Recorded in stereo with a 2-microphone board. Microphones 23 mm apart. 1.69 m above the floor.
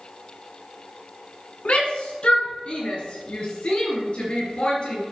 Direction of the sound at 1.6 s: 65° left (ahead or behind).